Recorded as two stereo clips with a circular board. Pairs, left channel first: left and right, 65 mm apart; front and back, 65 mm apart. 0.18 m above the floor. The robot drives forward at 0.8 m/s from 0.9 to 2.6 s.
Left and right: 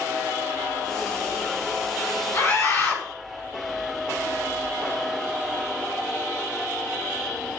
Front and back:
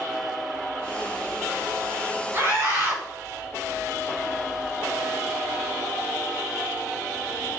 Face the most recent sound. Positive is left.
turn(degrees=130)